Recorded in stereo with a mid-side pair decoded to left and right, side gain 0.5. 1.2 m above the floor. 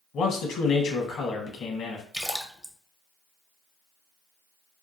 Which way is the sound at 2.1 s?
Straight ahead.